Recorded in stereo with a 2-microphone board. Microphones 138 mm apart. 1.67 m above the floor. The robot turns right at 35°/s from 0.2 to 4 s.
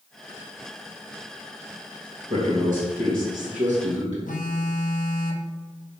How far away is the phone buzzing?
About 1.2 m.